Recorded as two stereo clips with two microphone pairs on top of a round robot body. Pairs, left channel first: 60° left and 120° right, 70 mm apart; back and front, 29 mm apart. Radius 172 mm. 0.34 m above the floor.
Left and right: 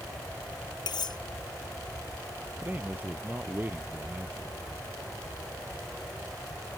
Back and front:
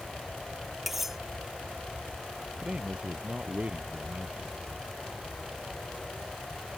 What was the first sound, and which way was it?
Cutlery clinking, 80° left.